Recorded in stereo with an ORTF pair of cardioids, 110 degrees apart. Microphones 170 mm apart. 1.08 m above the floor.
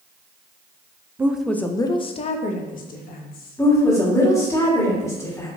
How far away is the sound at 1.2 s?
About 0.5 m.